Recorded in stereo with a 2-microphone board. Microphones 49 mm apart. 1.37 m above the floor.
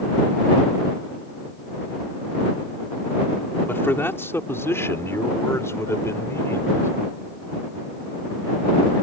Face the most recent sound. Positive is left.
turn(degrees=85)